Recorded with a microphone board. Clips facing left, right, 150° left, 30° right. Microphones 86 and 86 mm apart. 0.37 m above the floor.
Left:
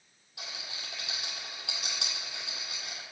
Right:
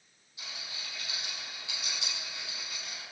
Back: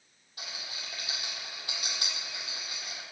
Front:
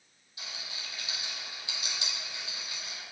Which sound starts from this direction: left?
A rattle, at 0.4 s.